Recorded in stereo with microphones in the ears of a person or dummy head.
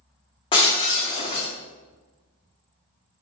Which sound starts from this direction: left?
Breaking glass, at 0.5 s.